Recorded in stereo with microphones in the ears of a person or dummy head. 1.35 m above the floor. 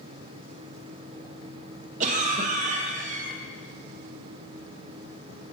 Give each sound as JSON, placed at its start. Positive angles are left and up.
{"t": 2.0, "sound": "a cough", "side_deg": -40, "distance_m": 1.0}